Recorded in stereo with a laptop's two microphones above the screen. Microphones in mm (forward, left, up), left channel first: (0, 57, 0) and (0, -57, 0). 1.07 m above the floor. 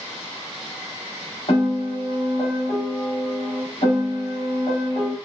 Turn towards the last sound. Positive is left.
turn(degrees=65)  # may be behind; listen again after turning